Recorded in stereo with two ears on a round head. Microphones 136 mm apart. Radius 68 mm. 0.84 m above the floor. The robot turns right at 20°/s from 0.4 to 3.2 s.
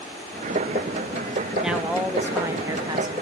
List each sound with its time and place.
1.6 s a woman speaking: 175° right, 1.0 m; by 3.1 s 145° right, 1.0 m